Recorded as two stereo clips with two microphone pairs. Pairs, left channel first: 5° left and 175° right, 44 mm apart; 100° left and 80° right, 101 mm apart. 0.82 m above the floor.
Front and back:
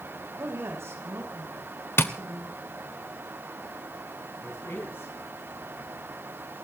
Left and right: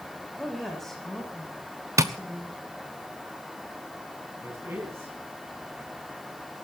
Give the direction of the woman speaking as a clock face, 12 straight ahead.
6 o'clock.